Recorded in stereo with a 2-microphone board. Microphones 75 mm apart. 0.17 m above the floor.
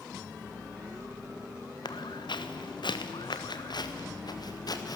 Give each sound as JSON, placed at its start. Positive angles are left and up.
{"t": 1.9, "sound": "footsteps", "side_deg": 70, "distance_m": 1.7}